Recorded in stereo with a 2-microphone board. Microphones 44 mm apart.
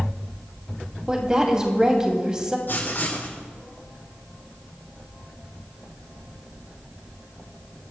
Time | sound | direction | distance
1.1 | a woman speaking | 15° right (ahead or behind) | 3 m
2.7 | writing | 50° left (ahead or behind) | 4 m